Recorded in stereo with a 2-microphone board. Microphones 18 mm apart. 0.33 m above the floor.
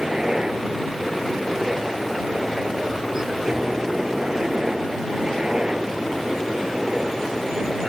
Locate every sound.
0.0 s a helicopter: 40° right (ahead or behind); by 7.9 s 45° right (ahead or behind)